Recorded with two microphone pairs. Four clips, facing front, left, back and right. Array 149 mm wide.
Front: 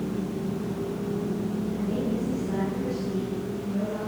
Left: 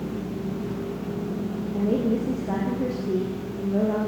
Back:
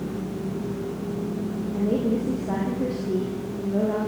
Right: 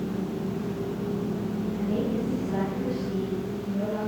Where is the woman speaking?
135° left, 6.5 m.